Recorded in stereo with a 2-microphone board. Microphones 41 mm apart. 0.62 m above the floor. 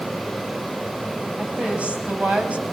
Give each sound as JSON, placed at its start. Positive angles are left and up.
{"t": 1.4, "sound": "a woman speaking", "side_deg": -30, "distance_m": 4.5}